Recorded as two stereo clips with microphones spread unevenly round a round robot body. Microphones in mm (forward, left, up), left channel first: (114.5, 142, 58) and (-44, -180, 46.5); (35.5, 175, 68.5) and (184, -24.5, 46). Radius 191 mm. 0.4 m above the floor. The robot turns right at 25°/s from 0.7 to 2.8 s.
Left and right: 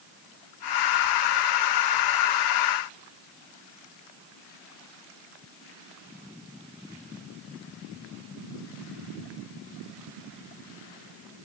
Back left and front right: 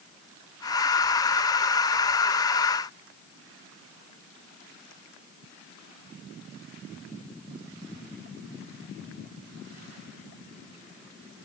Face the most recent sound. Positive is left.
No sound to turn to.